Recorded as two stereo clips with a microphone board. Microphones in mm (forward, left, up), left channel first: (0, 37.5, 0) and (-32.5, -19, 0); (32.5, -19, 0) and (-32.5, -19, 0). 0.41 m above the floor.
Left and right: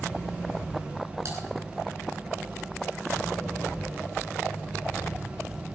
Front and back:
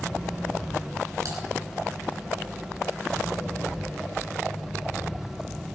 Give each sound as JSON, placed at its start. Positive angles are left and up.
{"t": 1.2, "sound": "typing on a keyboard", "azimuth_deg": -155, "distance_m": 5.0}